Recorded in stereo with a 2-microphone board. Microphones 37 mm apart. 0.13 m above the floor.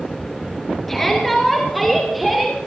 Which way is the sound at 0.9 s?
10° left (ahead or behind).